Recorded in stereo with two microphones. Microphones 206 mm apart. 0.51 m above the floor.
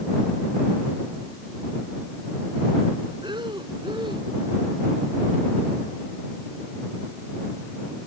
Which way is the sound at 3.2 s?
20° right (ahead or behind).